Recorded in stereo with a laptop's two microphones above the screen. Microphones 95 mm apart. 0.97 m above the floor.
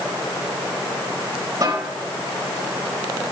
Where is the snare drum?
40° right (ahead or behind), 4 m.